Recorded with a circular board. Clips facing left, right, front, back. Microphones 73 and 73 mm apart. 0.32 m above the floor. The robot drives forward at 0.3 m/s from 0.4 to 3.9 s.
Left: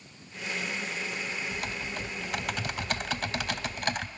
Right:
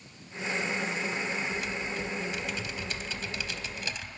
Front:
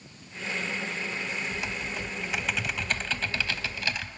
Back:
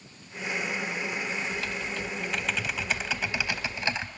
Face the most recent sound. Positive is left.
turn(degrees=115)